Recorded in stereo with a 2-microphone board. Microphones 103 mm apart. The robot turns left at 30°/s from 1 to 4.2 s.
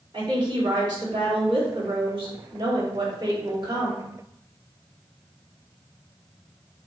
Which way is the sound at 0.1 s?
55° right.